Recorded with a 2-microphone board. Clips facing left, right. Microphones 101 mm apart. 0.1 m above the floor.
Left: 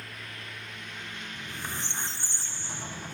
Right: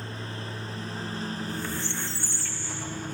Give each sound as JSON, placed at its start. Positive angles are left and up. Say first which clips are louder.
{"t": 0.0, "sound": "a lawn mower", "louder": "right 7 dB", "side_deg": -30}
{"t": 1.4, "sound": "a squeak", "louder": "right 6 dB", "side_deg": 20}